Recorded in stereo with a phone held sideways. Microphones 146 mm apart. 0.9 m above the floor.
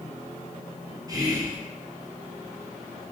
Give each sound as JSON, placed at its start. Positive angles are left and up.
{"t": 1.1, "sound": "whispering", "side_deg": -25, "distance_m": 0.7}